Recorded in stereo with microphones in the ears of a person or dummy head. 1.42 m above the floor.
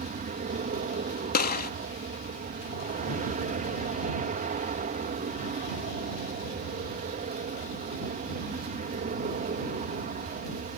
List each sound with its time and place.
0.0 s an aircraft: 35° right (ahead or behind)
1.3 s a gunshot: 50° left (ahead or behind)